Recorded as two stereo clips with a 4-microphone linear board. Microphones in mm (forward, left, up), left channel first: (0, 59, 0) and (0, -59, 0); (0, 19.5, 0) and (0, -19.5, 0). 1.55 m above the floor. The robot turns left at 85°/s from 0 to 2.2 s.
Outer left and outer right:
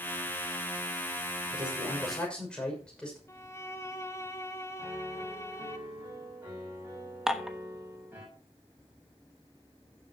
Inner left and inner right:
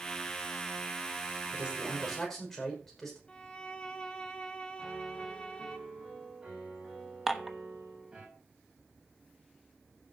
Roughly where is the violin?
Left.